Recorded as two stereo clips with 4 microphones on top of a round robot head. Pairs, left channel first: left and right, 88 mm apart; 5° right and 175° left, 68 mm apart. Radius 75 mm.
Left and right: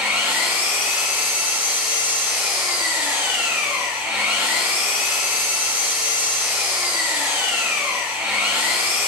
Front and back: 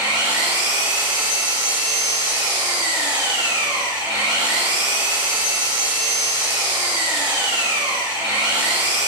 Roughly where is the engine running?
Behind right.